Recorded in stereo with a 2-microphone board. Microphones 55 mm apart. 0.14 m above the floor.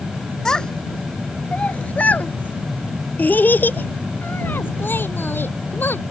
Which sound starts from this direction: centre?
A child speaking, at 0.5 s.